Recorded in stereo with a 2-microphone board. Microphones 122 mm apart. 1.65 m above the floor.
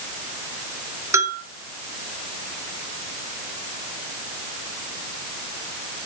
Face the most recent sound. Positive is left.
turn(degrees=-20)  # may be behind; listen again after turning